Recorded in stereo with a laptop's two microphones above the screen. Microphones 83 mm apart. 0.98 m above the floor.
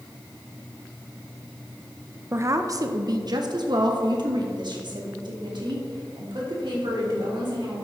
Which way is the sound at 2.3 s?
30° right (ahead or behind).